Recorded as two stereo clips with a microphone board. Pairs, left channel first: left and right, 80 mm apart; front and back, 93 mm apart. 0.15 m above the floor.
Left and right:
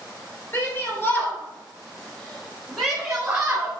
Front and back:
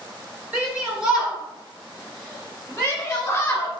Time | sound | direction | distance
0.5 | a shout | 120° left | 1.7 m